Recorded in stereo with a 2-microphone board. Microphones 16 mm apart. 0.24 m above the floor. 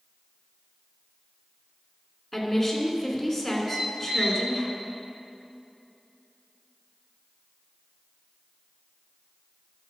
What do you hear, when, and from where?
2.3 s a woman speaking: 10° left (ahead or behind), 2.5 m
3.7 s a squeak: 45° right (ahead or behind), 3 m